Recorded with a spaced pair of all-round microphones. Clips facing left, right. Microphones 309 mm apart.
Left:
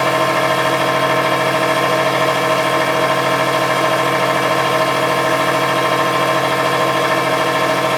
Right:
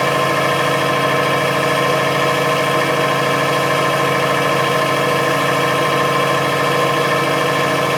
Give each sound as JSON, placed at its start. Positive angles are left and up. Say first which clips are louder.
{"t": 0.0, "sound": "a machine running", "louder": "even", "side_deg": -35, "distance_m": 2.5}